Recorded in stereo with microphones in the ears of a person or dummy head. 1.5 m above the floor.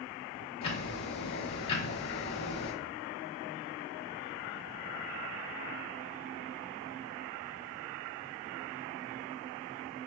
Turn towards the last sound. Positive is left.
turn(degrees=30)  # may be behind; listen again after turning